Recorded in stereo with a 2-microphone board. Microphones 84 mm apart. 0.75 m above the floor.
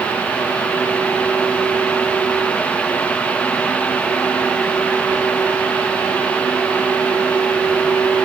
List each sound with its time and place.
Only background noise.